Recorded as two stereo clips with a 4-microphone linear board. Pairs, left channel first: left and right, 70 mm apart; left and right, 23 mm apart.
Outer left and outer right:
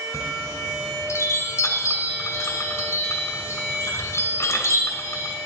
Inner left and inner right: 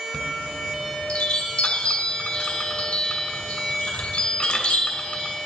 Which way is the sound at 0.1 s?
45° left (ahead or behind).